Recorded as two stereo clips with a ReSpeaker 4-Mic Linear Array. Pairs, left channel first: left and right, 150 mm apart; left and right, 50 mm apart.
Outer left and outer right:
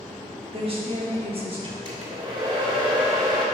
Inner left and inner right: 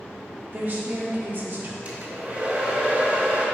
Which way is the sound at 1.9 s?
35° right (ahead or behind).